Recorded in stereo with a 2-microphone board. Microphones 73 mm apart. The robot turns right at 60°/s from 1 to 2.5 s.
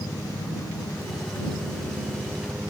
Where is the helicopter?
110° left; by 2.7 s 160° right.